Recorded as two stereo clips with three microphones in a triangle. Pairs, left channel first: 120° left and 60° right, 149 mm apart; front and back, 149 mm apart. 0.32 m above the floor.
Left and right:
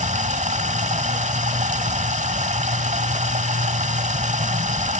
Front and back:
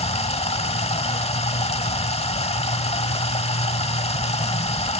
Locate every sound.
0.0 s running water: 35° right, 1.0 m